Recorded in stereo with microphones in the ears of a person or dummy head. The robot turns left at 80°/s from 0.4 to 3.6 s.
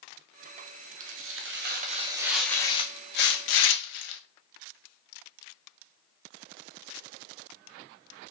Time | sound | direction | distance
1.0 | tearing paper | 75° right | 0.6 m